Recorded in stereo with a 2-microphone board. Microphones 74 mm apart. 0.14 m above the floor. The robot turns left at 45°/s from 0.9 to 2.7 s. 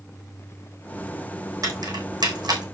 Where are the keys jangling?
55° right (ahead or behind), 4.5 m; by 2.6 s 75° right (ahead or behind), 4.5 m.